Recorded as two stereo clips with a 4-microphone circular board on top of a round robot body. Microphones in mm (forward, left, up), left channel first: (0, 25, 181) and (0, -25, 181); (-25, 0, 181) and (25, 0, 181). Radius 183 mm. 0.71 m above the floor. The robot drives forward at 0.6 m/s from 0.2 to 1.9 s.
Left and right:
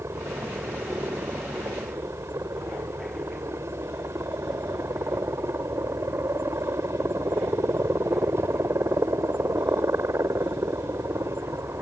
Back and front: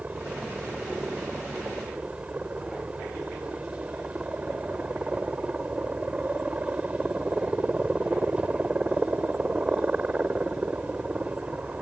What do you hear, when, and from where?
0.0 s a helicopter: 65° right